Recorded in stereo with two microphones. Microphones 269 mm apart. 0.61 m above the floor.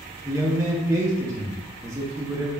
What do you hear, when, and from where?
0.2 s a man speaking: 10° right (ahead or behind), 0.7 m